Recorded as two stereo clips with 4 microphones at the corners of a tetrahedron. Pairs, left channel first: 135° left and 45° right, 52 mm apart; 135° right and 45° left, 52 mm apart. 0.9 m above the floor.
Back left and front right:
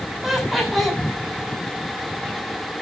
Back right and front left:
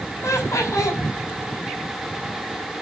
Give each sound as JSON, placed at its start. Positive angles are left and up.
{"t": 0.2, "sound": "laughter", "azimuth_deg": -135, "distance_m": 6.0}